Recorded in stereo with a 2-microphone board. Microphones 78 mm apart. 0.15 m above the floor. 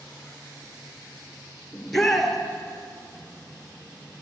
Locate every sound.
1.7 s a shout: 5° left (ahead or behind), 2 m